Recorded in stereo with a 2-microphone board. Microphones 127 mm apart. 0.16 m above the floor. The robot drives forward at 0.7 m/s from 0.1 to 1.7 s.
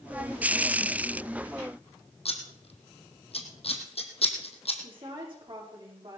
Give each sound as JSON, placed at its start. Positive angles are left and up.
{"t": 2.2, "sound": "scissors", "side_deg": 55, "distance_m": 2.0}
{"t": 4.8, "sound": "a woman speaking", "side_deg": -45, "distance_m": 9.0}